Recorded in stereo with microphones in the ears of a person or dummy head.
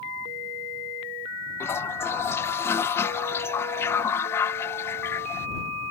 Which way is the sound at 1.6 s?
15° left (ahead or behind).